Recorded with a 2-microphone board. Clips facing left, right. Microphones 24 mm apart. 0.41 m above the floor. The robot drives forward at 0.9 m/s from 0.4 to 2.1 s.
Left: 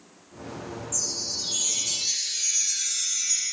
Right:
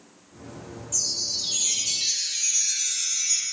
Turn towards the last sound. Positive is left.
turn(degrees=-20)  # may be behind; listen again after turning